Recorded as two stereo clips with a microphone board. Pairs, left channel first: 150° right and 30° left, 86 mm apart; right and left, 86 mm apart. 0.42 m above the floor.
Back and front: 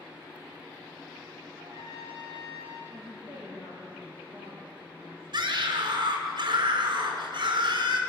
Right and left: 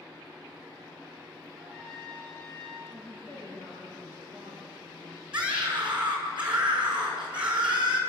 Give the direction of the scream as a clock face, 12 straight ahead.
12 o'clock.